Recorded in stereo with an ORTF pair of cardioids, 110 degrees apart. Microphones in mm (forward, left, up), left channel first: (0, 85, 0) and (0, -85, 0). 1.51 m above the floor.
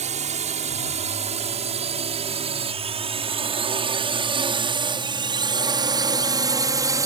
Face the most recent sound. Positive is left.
turn(degrees=-20)